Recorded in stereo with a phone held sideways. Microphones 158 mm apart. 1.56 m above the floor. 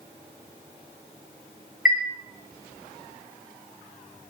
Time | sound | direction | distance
1.9 | a chime | 65° left (ahead or behind) | 1.3 m